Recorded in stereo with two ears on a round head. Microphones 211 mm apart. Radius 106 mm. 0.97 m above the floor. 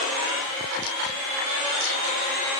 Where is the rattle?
No rattle in this recording.